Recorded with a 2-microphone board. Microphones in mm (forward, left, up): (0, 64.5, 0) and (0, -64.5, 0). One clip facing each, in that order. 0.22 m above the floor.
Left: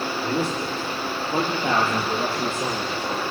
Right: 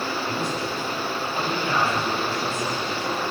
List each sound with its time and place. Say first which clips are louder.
0.2 s a man speaking: left 2 dB; 70° left (ahead or behind), 9 m; by 3.2 s 75° left (ahead or behind), 7.5 m